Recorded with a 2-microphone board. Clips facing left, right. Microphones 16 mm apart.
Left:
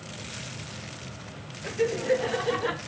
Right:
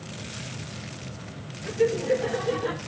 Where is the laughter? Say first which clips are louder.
Right 2 dB; 35° left (ahead or behind), 1.5 m; by 2.8 s 20° left (ahead or behind), 0.7 m.